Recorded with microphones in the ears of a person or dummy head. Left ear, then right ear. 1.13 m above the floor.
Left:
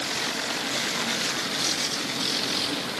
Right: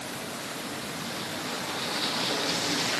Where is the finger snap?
I don't hear a finger snap.